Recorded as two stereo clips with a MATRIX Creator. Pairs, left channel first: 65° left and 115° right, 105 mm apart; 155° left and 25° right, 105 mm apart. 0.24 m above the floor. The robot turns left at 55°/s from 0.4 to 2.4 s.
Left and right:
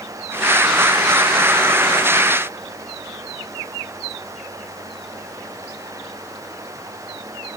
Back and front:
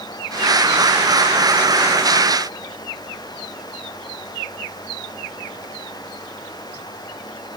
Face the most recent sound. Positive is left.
No sound to turn to.